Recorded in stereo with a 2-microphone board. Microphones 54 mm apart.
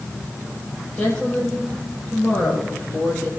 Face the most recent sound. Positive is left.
turn(degrees=15)  # may be behind; listen again after turning